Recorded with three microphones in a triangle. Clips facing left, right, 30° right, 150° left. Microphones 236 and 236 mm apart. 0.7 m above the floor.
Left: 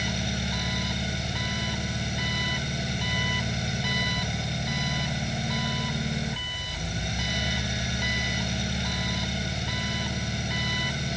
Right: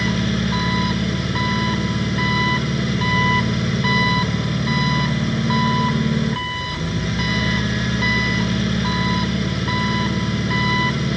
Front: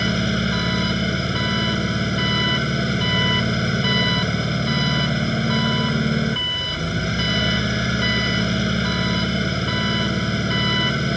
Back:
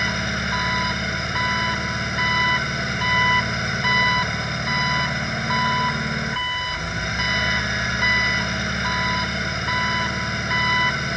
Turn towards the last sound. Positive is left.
turn(degrees=-85)